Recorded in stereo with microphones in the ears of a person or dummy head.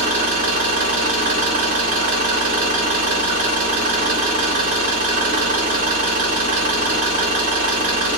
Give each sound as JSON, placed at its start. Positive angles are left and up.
{"t": 0.0, "sound": "an engine running", "side_deg": -35, "distance_m": 1.1}